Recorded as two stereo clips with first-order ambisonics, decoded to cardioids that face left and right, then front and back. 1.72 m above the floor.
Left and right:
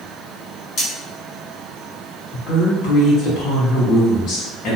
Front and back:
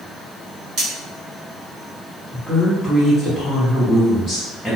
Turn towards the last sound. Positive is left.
turn(degrees=100)